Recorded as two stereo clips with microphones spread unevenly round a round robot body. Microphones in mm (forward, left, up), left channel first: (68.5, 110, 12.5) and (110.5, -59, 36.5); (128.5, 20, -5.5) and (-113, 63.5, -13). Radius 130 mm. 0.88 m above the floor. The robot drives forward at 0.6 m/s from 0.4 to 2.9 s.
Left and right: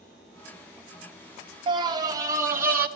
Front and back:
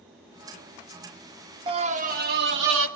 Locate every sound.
1.7 s a scream: 135° right, 0.9 m; by 2.9 s 160° right, 1.4 m